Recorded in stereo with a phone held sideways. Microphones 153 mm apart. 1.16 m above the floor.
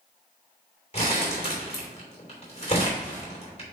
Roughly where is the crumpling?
Left.